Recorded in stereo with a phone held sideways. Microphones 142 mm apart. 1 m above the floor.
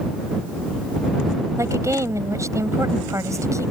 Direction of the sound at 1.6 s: 20° right (ahead or behind).